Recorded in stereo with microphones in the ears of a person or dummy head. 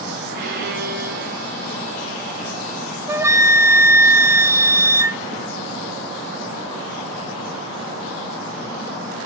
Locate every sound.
0.3 s a violin: 55° right (ahead or behind), 3 m
3.1 s a flute: 15° right (ahead or behind), 0.6 m